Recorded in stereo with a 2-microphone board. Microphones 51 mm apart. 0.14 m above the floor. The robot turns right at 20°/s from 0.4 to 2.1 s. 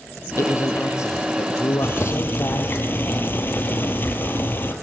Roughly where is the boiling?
Left.